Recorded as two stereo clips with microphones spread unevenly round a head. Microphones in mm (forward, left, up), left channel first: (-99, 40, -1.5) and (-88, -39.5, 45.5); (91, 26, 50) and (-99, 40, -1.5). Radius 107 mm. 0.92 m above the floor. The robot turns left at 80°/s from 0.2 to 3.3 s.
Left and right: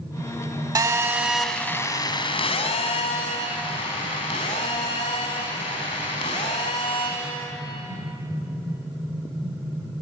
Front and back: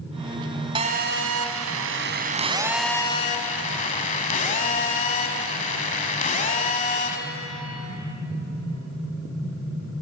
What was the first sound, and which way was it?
A phone buzzing, 110° right.